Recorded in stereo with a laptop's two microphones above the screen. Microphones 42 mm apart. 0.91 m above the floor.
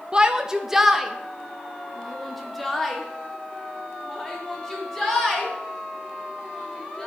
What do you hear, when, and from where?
0.1 s a shout: 25° right (ahead or behind), 0.7 m; by 7.1 s 10° left (ahead or behind), 5 m